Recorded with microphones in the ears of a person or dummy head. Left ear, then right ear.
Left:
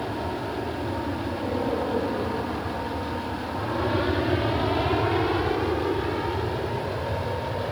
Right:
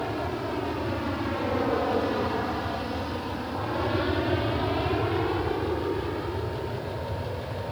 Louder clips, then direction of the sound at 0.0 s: Even; 70° right (ahead or behind).